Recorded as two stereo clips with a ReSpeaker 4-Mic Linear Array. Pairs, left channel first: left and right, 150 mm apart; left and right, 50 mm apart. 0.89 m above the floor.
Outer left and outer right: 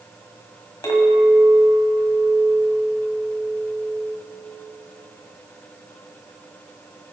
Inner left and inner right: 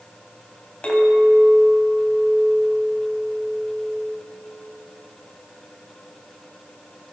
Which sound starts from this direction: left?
A clink, at 0.8 s.